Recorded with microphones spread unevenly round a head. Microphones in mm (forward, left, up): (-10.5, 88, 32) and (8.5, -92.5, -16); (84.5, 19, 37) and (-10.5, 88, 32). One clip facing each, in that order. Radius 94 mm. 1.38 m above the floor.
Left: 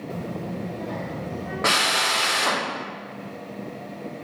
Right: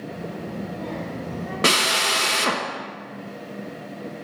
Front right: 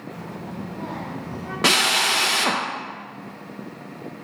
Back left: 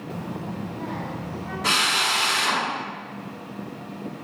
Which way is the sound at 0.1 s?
90° left.